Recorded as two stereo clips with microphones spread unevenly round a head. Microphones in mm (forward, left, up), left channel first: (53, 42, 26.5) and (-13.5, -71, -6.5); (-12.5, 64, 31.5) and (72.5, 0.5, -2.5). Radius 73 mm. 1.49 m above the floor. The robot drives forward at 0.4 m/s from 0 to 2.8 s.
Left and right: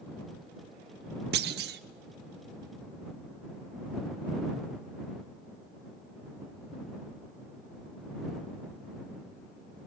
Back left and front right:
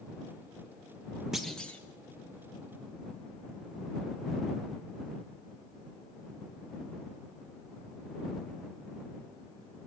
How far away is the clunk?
About 0.6 m.